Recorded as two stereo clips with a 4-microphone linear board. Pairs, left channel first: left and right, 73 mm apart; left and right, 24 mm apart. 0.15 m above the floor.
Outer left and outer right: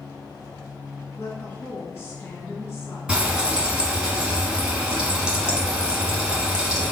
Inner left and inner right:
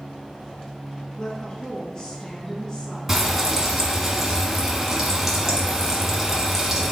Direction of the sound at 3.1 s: 15° right (ahead or behind).